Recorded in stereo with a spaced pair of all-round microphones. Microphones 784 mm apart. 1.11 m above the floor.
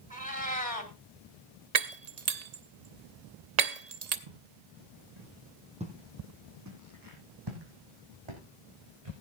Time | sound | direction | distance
0.1 | a cat meowing | 10° left (ahead or behind) | 1.7 m
1.8 | breaking glass | 55° right (ahead or behind) | 0.9 m
4.3 | footsteps | 60° right (ahead or behind) | 6 m
5.8 | footsteps | 10° right (ahead or behind) | 2.5 m